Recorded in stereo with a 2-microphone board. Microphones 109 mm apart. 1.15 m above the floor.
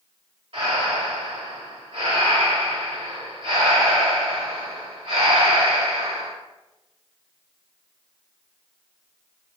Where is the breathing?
60° right (ahead or behind), 1.6 m.